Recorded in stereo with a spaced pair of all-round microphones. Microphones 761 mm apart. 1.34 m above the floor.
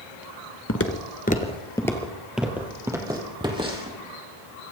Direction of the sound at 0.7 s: 20° left (ahead or behind).